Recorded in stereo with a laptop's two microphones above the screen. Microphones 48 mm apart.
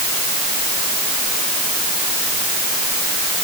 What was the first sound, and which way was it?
Only background noise.